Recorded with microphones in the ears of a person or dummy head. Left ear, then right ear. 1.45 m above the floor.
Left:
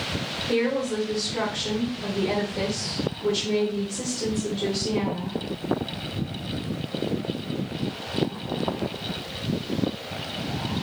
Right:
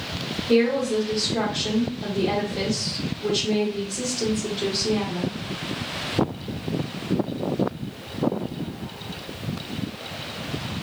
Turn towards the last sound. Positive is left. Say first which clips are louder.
# right 5 dB
turn(degrees=-30)  # may be behind; listen again after turning